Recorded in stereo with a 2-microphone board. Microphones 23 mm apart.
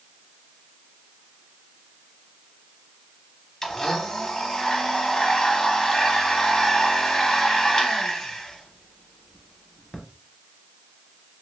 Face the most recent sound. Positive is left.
turn(degrees=20)  # may be behind; listen again after turning